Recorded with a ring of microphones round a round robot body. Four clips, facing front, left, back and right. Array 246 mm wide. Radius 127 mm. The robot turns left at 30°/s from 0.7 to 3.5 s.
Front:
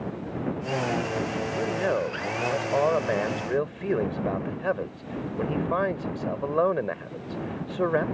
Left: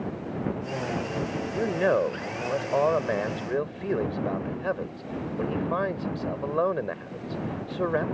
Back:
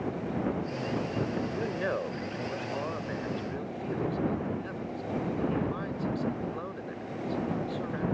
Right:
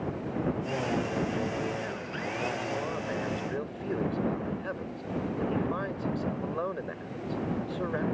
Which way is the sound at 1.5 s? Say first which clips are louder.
Left 9 dB, front 5 dB; 85° left.